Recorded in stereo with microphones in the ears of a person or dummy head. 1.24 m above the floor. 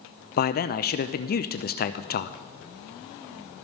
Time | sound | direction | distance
0.4 | a man speaking | 45° left (ahead or behind) | 0.6 m